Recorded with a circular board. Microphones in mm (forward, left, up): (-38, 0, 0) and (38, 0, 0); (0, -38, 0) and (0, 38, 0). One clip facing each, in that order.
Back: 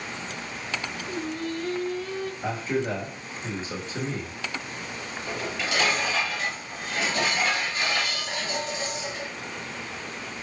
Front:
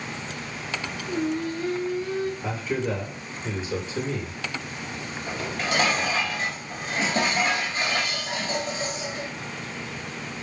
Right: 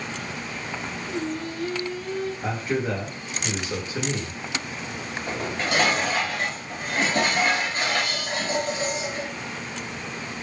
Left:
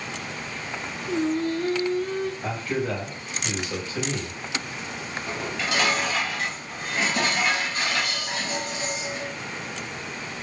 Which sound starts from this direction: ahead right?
Dishes clattering, at 5.3 s.